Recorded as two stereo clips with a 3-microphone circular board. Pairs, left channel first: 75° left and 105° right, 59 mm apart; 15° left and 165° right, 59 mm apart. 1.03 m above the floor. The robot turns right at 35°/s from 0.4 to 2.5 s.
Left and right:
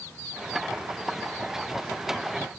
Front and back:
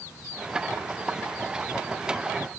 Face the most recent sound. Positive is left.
No sound to turn to.